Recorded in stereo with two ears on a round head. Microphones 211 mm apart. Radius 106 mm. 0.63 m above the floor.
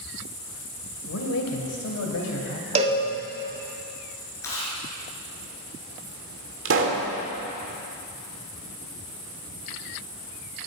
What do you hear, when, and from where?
1.1 s a man speaking: 60° left (ahead or behind), 2 m; by 3.3 s 70° left (ahead or behind), 3.5 m
2.8 s a cowbell: 25° right (ahead or behind), 1.5 m
4.4 s chewing: 10° left (ahead or behind), 4 m
6.7 s a pop: 55° right (ahead or behind), 1.8 m